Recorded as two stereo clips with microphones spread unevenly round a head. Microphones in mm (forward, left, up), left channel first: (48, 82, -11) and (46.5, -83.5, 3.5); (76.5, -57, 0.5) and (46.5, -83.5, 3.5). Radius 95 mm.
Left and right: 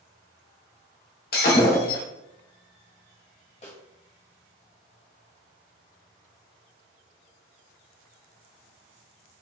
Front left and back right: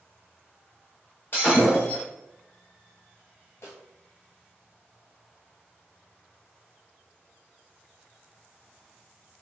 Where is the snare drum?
40° left, 1.8 m.